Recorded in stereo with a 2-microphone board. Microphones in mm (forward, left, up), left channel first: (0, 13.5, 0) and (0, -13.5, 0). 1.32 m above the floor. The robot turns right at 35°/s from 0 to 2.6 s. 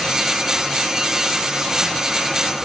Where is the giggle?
I don't hear a giggle.